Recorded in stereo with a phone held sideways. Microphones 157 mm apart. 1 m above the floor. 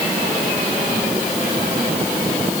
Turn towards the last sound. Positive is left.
No sound to turn to.